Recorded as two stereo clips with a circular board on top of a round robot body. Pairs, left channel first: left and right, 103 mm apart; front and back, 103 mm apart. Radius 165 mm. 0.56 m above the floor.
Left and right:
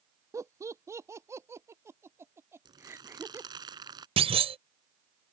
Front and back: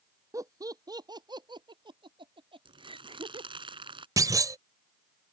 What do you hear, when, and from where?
0.3 s laughter: 135° right; by 3.5 s 155° right
2.6 s crumpling: 140° right
4.2 s a clunk: 120° right